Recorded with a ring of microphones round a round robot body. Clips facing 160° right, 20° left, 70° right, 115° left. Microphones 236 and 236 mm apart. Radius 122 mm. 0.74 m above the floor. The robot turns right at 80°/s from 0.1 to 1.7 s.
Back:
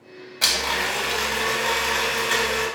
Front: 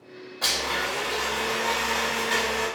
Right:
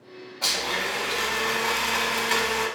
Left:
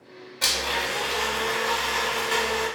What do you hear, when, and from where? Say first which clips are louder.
0.4 s a blender: back 2 dB, left 1 dB; 170° left, 0.7 m; by 2.7 s 90° right, 0.7 m